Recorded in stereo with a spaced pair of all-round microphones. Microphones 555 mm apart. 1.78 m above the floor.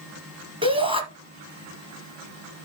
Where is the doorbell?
I don't hear a doorbell.